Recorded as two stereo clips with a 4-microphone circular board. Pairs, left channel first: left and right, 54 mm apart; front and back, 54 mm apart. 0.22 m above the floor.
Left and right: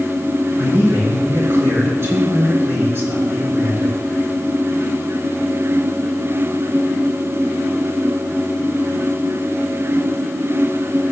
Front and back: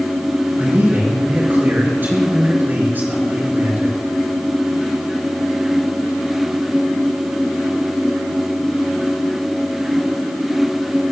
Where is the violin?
I don't hear a violin.